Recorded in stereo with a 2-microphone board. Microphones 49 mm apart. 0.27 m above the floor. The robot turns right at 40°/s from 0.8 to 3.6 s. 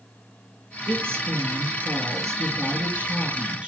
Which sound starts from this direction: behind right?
A woman speaking, at 0.9 s.